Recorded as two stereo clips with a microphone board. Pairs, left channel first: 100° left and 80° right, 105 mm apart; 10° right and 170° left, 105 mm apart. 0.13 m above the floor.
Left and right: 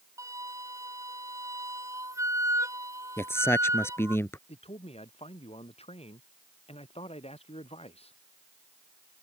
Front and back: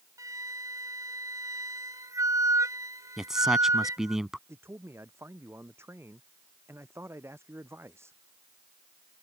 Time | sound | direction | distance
0.2 | a flute | 135° right | ?
3.2 | a man speaking | 90° left | ?
4.5 | a man speaking | 105° left | ?